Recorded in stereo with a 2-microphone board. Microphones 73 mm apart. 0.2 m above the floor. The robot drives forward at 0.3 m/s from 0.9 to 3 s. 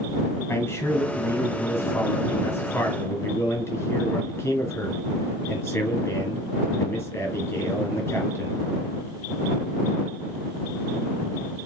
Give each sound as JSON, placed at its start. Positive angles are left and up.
{"t": 0.5, "sound": "a man speaking", "side_deg": 35, "distance_m": 1.6}